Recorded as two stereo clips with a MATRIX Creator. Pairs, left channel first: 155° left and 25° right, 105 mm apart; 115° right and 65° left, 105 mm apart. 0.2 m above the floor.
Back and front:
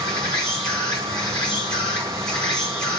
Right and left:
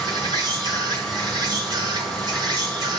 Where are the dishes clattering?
No dishes clattering in this recording.